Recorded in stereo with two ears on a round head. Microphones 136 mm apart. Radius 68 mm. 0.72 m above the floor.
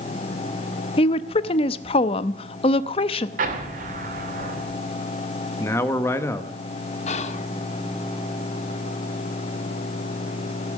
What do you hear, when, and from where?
1.0 s a woman speaking: 35° left (ahead or behind), 0.6 m
3.4 s an explosion: 60° right (ahead or behind), 2.5 m
5.6 s a man speaking: 15° left (ahead or behind), 1.1 m
7.1 s whispering: 45° left (ahead or behind), 1.4 m